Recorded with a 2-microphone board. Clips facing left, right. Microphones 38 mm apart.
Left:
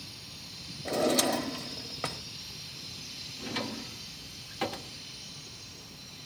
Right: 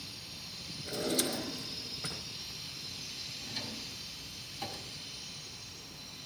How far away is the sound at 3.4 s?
About 0.8 m.